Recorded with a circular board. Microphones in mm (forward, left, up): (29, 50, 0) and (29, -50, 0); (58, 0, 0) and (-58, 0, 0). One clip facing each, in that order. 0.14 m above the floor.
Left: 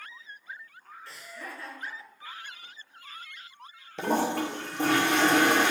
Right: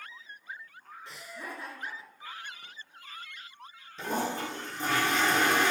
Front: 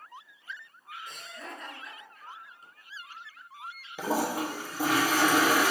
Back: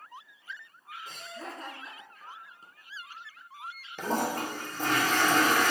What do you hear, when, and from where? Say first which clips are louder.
1.1 s laughter: right 1 dB, back 3 dB; 150° right, 1.3 m
4.0 s a toilet flushing: left 5 dB, front 1 dB; 80° left, 0.9 m